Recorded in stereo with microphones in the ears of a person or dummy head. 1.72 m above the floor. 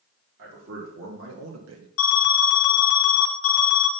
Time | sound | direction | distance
0.4 | a man speaking | 60° right (ahead or behind) | 1.7 m
2.0 | an alarm | 60° left (ahead or behind) | 0.9 m